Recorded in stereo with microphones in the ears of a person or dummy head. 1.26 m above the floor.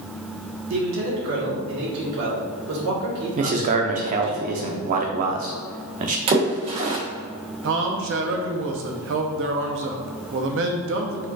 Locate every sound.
0.7 s a man speaking: 75° right (ahead or behind), 1.7 m
3.4 s a man speaking: 45° right (ahead or behind), 0.7 m
6.3 s a splash: 40° right (ahead or behind), 0.8 m
7.6 s a man speaking: 60° right (ahead or behind), 0.7 m